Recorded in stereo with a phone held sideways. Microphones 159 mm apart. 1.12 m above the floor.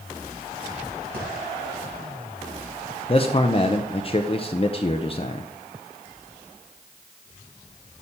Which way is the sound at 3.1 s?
35° left (ahead or behind).